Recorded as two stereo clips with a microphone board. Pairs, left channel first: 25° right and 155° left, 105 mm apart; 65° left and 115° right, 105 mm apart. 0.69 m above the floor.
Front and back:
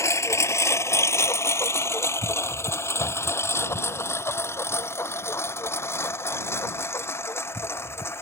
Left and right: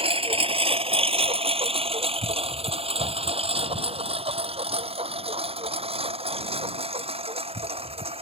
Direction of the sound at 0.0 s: 85° right.